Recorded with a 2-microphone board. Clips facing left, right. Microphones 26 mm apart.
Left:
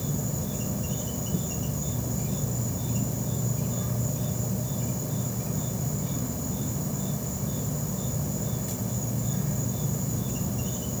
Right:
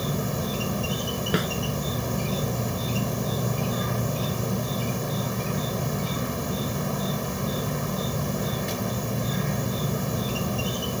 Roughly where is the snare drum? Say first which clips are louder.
Right 8 dB; right.